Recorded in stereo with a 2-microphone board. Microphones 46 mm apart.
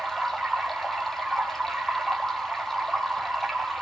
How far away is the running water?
About 1.9 m.